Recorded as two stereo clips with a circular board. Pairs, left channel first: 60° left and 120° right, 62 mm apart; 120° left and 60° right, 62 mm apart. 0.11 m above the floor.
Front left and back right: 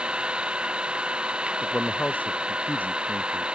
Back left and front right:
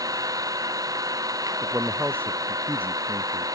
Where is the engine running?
45° right.